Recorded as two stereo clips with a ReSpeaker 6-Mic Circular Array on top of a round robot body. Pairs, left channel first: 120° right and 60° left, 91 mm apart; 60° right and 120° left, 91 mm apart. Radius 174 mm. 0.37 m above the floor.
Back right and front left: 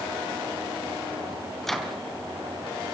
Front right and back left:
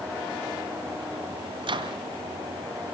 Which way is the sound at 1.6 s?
155° left.